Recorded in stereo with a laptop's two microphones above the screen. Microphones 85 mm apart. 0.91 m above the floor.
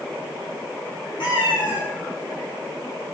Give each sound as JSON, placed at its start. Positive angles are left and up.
{"t": 1.2, "sound": "a cat meowing", "side_deg": 65, "distance_m": 2.5}